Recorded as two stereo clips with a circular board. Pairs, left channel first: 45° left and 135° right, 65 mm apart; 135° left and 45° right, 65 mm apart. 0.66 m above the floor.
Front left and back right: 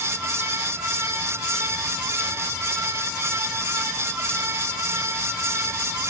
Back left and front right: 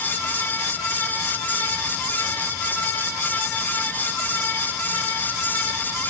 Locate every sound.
Only background noise.